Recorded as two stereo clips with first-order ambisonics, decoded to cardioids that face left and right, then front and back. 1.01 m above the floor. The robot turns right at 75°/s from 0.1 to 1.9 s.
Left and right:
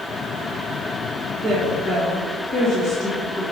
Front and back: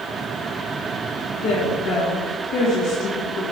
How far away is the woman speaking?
About 1.4 m.